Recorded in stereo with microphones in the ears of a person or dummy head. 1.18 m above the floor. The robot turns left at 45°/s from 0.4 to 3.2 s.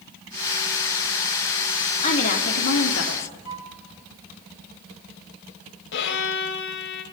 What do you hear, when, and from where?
2.0 s a woman speaking: 140° left, 3.5 m; by 3.3 s 90° left, 3.5 m
3.5 s a flute: 30° right (ahead or behind), 3 m
5.9 s a violin: 70° left (ahead or behind), 2 m